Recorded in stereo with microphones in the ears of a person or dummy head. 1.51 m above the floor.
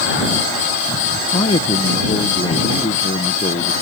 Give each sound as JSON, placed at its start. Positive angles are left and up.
{"t": 1.3, "sound": "a man speaking", "side_deg": 30}